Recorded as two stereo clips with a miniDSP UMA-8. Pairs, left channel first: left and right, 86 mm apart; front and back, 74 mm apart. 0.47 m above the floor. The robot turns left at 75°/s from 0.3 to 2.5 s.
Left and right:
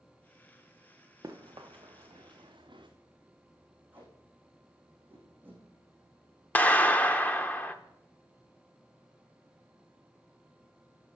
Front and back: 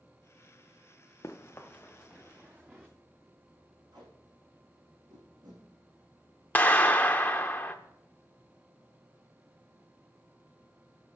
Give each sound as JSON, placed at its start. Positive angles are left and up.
{"t": 1.2, "sound": "running footsteps", "azimuth_deg": -55, "distance_m": 1.6}
{"t": 3.9, "sound": "tape being pulled", "azimuth_deg": -160, "distance_m": 5.5}
{"t": 6.5, "sound": "a clap", "azimuth_deg": 40, "distance_m": 0.8}